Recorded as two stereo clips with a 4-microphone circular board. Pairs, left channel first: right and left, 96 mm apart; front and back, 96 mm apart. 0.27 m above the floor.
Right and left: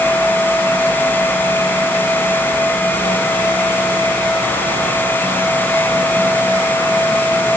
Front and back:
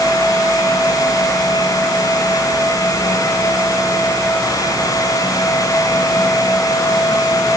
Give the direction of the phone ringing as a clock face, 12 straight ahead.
I don't hear a phone ringing.